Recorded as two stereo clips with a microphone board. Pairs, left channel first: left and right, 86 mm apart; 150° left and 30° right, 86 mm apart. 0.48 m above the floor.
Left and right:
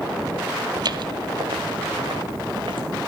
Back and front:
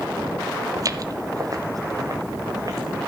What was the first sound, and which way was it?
Footsteps, 70° right.